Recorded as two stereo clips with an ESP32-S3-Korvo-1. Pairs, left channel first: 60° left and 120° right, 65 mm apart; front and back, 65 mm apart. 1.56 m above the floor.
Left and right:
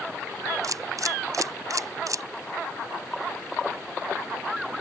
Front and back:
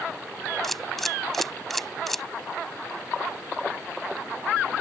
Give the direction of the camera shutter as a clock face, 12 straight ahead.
3 o'clock.